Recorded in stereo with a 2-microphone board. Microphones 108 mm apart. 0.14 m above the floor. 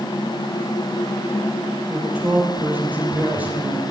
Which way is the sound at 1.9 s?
15° right (ahead or behind).